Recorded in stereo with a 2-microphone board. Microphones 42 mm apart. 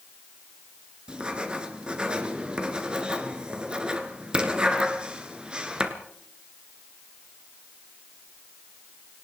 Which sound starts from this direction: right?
Writing, at 1.1 s.